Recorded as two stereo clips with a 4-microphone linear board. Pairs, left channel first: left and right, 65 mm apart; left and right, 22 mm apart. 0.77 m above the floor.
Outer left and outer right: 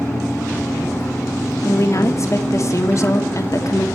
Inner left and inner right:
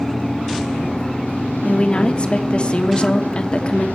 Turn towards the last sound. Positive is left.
turn(degrees=50)  # may be behind; listen again after turning